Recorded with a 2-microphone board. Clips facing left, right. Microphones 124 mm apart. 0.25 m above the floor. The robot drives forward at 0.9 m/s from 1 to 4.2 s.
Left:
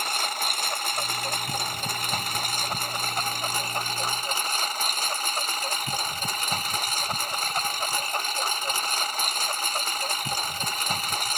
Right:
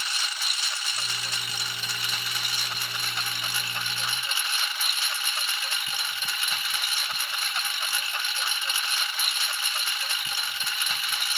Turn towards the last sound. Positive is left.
turn(degrees=45)  # may be behind; listen again after turning